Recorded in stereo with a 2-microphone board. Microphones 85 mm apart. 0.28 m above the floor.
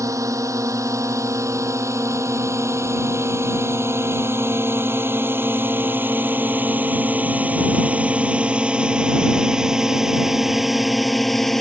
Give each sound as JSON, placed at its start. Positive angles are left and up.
{"t": 0.0, "sound": "a drone", "side_deg": -40}